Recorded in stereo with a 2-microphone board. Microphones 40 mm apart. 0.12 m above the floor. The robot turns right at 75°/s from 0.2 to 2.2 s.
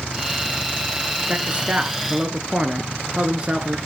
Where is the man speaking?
115° right, 2 m; by 3.8 s 50° right, 2 m.